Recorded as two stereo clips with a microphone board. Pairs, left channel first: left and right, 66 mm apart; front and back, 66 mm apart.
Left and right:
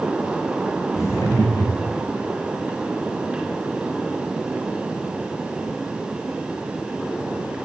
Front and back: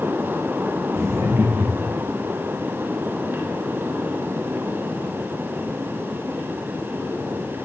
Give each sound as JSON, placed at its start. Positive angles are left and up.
{"t": 0.9, "sound": "laughter", "azimuth_deg": 135, "distance_m": 9.5}